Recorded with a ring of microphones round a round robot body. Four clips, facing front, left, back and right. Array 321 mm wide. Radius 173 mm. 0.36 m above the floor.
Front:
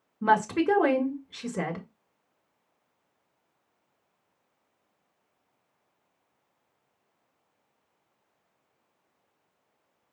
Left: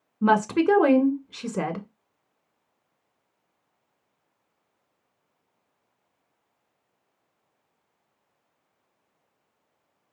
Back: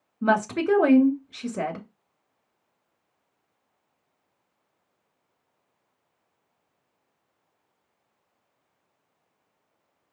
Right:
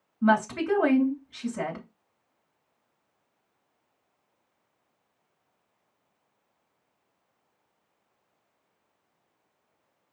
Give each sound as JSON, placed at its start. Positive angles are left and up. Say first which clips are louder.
{"t": 0.2, "sound": "a woman speaking", "louder": "left 4 dB, even", "azimuth_deg": 90, "distance_m": 2.0}